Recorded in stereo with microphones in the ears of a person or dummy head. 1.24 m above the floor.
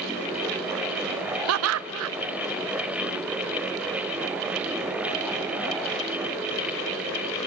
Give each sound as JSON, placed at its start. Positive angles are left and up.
{"t": 1.5, "sound": "laughter", "side_deg": -80, "distance_m": 0.5}